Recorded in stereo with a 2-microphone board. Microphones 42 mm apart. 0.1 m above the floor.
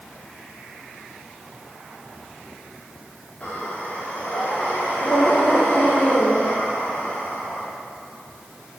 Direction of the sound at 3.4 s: 30° left (ahead or behind).